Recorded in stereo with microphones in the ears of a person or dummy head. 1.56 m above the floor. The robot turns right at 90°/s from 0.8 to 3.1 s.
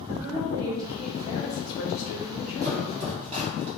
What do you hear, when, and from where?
0.1 s a woman speaking: 20° right, 0.8 m; by 3.6 s 175° right, 0.8 m
2.6 s chopping: 65° right (ahead or behind), 1.0 m; by 3.7 s 35° right (ahead or behind), 1.0 m